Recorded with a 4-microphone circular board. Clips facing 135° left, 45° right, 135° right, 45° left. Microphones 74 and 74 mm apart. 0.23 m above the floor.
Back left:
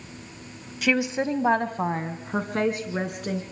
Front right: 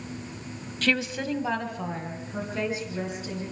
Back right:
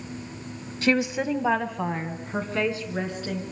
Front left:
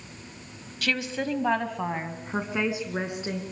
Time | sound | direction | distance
0.8 | a woman speaking | 155° right | 1.4 m